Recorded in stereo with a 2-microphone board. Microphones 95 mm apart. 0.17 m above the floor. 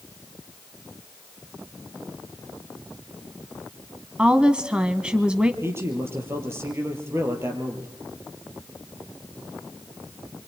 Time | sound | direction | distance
4.2 | a woman speaking | 10° right (ahead or behind) | 1.1 m
5.6 | a man speaking | 30° right (ahead or behind) | 4.5 m